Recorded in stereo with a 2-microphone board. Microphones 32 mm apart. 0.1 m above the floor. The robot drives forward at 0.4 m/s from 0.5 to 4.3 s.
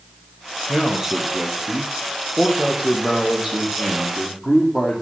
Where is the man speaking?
20° right (ahead or behind), 3 m; by 5.0 s 15° right (ahead or behind), 4 m.